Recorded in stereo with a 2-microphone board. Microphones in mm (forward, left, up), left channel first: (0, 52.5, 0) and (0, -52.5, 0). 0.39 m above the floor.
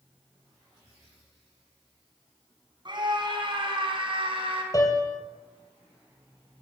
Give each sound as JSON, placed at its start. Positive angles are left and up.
{"t": 2.9, "sound": "a scream", "side_deg": -50, "distance_m": 4.0}
{"t": 4.7, "sound": "a piano", "side_deg": 35, "distance_m": 3.0}